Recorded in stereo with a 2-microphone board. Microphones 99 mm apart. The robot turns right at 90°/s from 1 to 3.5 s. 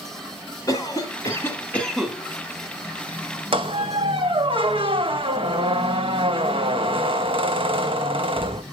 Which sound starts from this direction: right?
A squeak, at 3.5 s.